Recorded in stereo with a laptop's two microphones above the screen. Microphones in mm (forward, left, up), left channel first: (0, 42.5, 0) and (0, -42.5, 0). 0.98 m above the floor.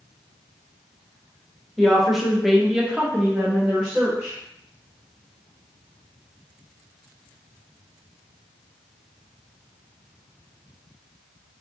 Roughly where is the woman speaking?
Centre.